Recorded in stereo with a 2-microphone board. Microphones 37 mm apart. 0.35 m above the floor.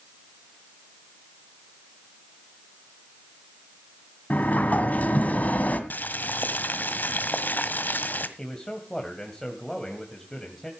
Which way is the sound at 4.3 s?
45° left (ahead or behind).